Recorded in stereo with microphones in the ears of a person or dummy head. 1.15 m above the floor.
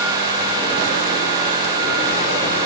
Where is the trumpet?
I don't hear a trumpet.